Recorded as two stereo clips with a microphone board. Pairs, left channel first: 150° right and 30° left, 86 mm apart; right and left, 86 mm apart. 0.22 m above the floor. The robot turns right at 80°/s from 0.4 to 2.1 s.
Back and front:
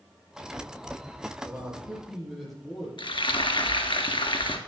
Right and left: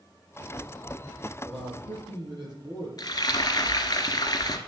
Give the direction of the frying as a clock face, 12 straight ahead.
4 o'clock.